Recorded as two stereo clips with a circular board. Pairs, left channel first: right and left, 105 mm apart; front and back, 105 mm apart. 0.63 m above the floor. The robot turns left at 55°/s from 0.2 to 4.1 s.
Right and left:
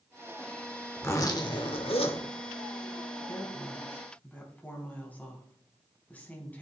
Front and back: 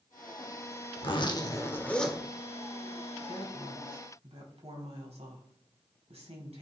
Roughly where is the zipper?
Ahead right.